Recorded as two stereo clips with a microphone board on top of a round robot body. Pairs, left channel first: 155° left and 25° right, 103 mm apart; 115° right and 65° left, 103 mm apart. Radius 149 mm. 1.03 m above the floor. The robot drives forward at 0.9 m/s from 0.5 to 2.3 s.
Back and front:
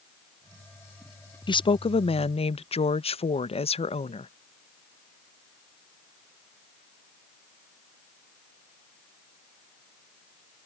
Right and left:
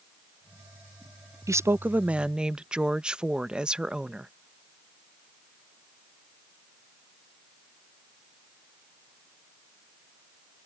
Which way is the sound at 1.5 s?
125° left.